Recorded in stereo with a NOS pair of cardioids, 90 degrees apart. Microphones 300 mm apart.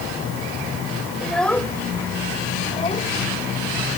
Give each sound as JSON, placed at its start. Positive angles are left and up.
{"t": 1.2, "sound": "a child speaking", "azimuth_deg": 0}